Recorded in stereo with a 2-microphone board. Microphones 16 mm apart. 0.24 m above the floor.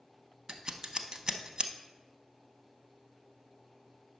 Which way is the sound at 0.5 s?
50° right (ahead or behind).